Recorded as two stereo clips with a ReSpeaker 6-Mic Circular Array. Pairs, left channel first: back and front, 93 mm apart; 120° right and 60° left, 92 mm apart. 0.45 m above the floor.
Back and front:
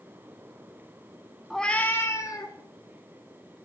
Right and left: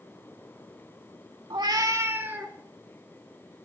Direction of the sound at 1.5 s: 90° left.